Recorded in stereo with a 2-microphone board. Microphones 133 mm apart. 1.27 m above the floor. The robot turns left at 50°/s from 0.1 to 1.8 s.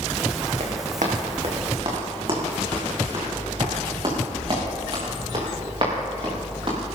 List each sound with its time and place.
0.6 s running footsteps: 65° right (ahead or behind), 3.5 m; by 6.8 s 45° right (ahead or behind), 7 m